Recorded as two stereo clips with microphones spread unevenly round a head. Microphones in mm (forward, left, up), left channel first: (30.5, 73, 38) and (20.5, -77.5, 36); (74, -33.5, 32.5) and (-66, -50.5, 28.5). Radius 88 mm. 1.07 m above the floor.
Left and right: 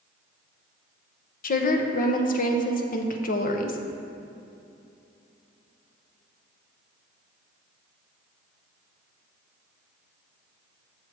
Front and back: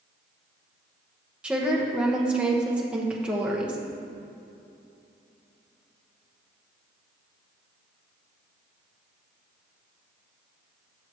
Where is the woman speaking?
105° left, 0.8 m.